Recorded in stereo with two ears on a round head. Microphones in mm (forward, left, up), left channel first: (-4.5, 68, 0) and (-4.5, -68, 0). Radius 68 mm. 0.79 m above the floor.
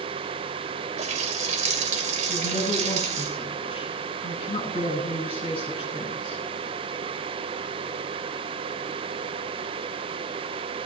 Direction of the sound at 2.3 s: 35° left (ahead or behind).